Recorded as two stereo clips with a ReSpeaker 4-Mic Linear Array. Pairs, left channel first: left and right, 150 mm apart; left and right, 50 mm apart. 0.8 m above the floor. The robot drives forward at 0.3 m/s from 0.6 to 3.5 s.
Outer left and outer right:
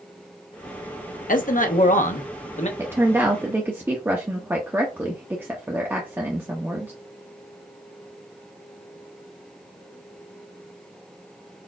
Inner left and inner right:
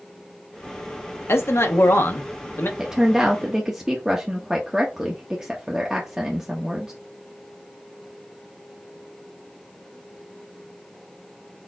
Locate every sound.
1.3 s a man speaking: 60° left (ahead or behind), 0.7 m; by 2.7 s 50° left (ahead or behind), 0.9 m
2.8 s a woman speaking: 15° right (ahead or behind), 0.7 m